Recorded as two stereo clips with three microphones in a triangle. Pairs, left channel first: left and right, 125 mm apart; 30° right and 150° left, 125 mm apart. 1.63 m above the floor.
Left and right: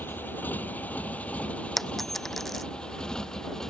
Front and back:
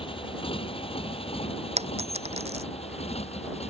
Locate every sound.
0.0 s a motorcycle: 15° left; by 3.7 s 5° left
1.8 s a dropped coin: straight behind